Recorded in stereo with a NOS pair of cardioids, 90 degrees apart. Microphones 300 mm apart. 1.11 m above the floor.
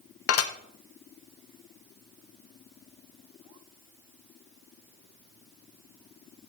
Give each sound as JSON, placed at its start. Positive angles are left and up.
{"t": 0.3, "sound": "dishes clattering", "azimuth_deg": 50, "distance_m": 0.8}